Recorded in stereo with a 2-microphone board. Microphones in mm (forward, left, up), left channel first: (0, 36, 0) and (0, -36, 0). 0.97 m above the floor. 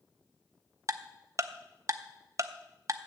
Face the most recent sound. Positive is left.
turn(degrees=-45)  # may be behind; listen again after turning